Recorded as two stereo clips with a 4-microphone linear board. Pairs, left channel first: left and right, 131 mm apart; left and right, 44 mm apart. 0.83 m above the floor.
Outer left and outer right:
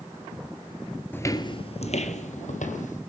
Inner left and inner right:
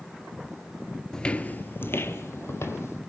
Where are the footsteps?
15° left (ahead or behind), 1.0 m; by 3.0 s 70° left (ahead or behind), 2.5 m.